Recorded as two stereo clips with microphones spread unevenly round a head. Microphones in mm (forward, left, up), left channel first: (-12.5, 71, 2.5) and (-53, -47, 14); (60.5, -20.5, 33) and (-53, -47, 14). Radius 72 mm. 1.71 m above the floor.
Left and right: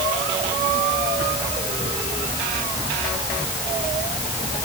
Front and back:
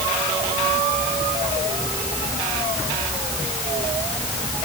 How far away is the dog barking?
No dog barking in this recording.